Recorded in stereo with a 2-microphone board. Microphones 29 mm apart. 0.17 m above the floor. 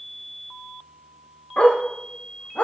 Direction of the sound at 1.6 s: 60° left (ahead or behind).